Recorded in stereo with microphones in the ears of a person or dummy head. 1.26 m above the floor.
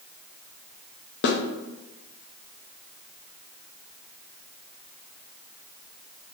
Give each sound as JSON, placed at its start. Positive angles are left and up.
{"t": 1.2, "sound": "a snare drum", "side_deg": 55, "distance_m": 0.6}